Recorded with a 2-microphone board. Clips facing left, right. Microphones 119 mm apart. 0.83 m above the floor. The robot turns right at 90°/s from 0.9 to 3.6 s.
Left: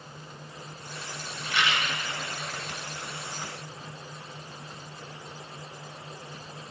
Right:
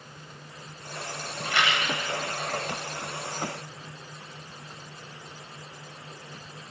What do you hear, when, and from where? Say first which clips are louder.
1.4 s a rattle: right 2 dB; 125° right, 3 m; by 1.9 s 80° right, 3 m